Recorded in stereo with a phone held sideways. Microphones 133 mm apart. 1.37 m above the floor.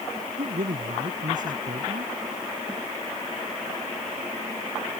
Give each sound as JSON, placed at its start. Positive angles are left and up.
{"t": 0.4, "sound": "a man speaking", "side_deg": -80}